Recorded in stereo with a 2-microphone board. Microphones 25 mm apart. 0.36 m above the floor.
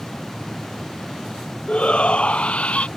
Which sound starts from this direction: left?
A shout, at 1.7 s.